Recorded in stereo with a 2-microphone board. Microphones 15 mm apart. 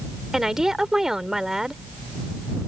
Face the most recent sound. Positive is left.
turn(degrees=-45)  # may be behind; listen again after turning